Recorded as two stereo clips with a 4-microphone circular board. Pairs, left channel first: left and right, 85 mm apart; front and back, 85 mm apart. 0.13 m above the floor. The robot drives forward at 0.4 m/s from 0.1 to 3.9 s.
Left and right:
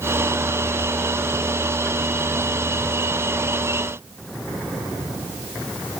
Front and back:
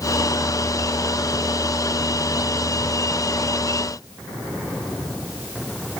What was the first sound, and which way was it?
Only background noise.